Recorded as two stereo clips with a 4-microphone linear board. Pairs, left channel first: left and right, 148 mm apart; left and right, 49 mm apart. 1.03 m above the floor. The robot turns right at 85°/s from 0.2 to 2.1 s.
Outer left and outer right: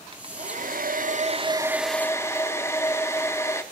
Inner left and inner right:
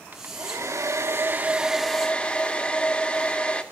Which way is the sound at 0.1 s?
140° right.